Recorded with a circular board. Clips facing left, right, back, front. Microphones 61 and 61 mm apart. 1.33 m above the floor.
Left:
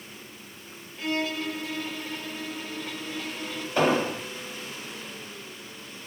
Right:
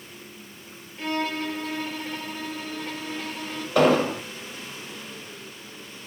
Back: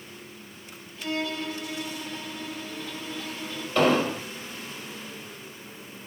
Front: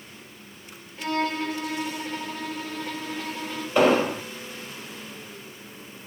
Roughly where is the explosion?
Right.